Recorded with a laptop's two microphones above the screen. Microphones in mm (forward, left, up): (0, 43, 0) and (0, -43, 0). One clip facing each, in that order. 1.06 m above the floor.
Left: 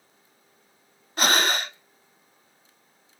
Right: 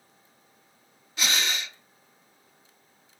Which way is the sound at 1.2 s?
50° left (ahead or behind).